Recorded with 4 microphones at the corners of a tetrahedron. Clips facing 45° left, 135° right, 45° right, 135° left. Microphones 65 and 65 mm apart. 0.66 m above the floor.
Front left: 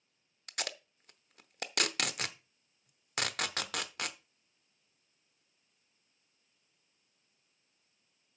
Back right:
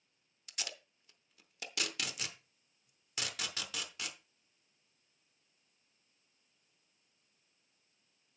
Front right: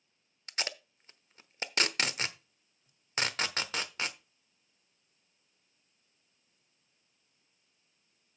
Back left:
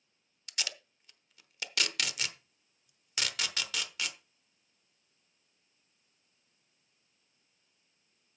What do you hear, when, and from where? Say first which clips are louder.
0.5 s tape being pulled: front left 6 dB, front right 3 dB; 10° left, 0.8 m